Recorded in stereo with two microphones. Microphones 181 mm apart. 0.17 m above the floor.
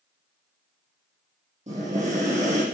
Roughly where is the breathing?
Right.